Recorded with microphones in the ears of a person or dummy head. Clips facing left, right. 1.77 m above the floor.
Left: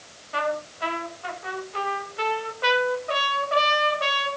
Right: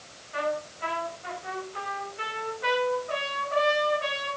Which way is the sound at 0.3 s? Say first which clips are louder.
Left 2 dB; 70° left (ahead or behind).